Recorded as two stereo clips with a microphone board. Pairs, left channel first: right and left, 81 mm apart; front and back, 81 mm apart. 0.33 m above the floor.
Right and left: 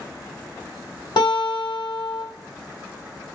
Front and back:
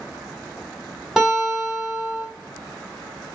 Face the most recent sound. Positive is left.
turn(degrees=-95)